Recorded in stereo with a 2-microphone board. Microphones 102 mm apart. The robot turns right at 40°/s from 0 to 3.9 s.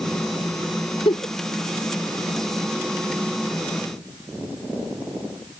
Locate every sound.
1.1 s a giggle: 60° left (ahead or behind); by 1.3 s 50° left (ahead or behind)